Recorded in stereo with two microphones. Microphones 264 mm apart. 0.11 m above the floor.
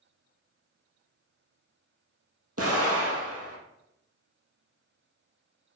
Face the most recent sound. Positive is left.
turn(degrees=-65)  # may be behind; listen again after turning